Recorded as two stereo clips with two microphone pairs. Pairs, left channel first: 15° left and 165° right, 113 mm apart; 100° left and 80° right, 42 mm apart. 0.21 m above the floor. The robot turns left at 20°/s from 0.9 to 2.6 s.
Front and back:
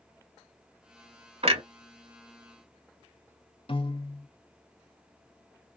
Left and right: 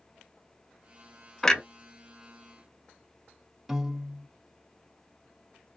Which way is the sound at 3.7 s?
Straight ahead.